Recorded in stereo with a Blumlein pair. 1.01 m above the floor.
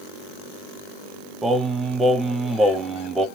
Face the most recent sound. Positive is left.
turn(degrees=-5)